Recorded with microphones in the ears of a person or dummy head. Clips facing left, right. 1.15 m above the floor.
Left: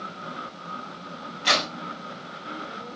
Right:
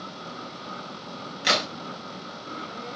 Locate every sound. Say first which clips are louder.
1.4 s a crack: even; 25° right (ahead or behind), 0.7 m